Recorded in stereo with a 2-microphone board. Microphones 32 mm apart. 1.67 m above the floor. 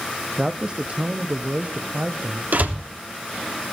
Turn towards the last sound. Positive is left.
turn(degrees=-60)  # may be behind; listen again after turning